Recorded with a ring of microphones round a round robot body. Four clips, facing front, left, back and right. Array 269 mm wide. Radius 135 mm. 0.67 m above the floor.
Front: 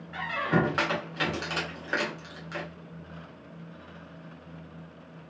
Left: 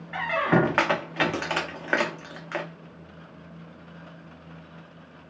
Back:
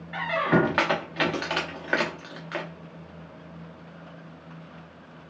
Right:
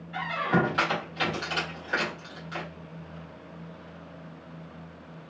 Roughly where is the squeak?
Behind left.